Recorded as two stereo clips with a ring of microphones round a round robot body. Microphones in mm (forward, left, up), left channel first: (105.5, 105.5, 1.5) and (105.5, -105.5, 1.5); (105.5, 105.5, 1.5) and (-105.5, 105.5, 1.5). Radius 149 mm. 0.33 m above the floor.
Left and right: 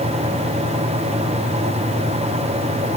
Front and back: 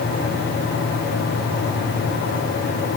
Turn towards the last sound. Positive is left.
No sound to turn to.